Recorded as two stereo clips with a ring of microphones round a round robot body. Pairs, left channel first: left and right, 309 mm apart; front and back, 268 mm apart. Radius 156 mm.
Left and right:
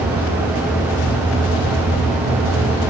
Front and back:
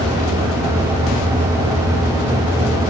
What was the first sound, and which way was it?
Only background noise.